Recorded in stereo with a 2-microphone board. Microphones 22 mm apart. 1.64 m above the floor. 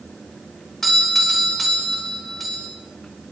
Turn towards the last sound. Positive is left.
turn(degrees=10)  # may be behind; listen again after turning